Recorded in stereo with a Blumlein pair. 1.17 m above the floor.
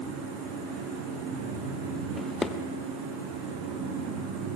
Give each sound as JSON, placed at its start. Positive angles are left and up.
{"t": 0.0, "sound": "a fan", "azimuth_deg": -40, "distance_m": 9.0}
{"t": 2.2, "sound": "a drawer", "azimuth_deg": 10, "distance_m": 1.7}